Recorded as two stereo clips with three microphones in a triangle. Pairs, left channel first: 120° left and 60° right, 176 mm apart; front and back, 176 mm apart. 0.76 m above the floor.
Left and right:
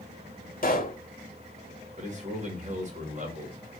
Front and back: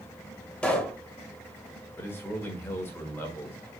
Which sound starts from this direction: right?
A man speaking, at 2.0 s.